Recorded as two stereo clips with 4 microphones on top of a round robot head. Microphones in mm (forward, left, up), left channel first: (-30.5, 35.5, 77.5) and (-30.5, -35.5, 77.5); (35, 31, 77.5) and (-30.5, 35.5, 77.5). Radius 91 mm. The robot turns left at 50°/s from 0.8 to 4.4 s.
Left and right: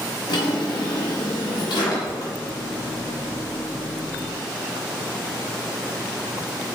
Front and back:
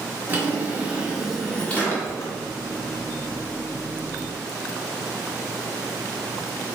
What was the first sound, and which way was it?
A drawer, 115° left.